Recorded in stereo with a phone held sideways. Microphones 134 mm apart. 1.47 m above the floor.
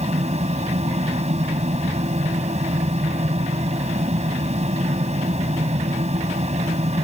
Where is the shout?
No shout in this recording.